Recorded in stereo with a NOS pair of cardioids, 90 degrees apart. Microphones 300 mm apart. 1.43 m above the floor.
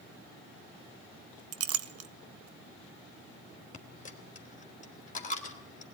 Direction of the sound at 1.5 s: 60° right.